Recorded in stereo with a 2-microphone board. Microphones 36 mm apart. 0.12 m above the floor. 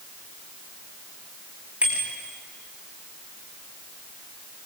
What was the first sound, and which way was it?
A bicycle bell, 35° right (ahead or behind).